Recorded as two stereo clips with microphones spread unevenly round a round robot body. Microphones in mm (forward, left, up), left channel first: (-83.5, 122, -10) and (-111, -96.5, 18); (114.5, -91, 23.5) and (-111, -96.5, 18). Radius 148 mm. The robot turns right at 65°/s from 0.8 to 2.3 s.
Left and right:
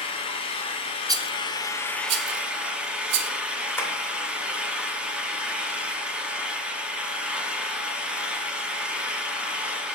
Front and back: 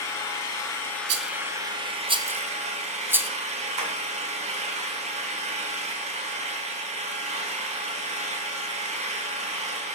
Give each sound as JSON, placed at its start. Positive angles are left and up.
{"t": 0.0, "sound": "an engine running", "azimuth_deg": 70, "distance_m": 0.9}
{"t": 1.1, "sound": "a rattle", "azimuth_deg": -175, "distance_m": 0.6}
{"t": 3.8, "sound": "tapping", "azimuth_deg": 165, "distance_m": 2.5}